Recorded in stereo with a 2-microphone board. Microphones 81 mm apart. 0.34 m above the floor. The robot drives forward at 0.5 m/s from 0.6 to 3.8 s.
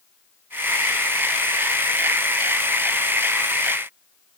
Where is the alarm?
I don't hear an alarm.